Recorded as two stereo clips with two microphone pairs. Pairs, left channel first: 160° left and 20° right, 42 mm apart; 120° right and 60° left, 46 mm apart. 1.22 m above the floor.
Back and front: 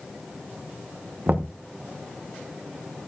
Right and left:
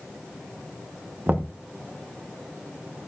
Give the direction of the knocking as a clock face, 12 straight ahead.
11 o'clock.